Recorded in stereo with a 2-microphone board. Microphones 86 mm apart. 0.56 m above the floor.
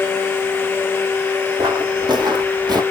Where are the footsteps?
65° right (ahead or behind), 1.5 m; by 2.8 s 60° right (ahead or behind), 0.9 m.